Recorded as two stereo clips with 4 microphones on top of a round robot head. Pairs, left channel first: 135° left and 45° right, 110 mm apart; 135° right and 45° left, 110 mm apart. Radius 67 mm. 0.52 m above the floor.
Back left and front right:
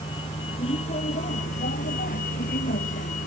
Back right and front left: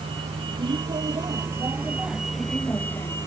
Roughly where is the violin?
I don't hear a violin.